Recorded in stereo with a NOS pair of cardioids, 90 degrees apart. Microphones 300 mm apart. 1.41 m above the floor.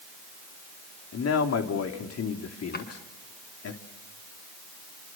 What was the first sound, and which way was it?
A man speaking, 55° left.